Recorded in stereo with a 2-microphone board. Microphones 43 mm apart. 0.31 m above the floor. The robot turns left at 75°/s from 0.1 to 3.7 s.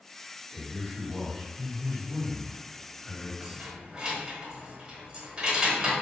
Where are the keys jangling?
35° right (ahead or behind), 1.0 m; by 5.9 s 20° right (ahead or behind), 1.0 m.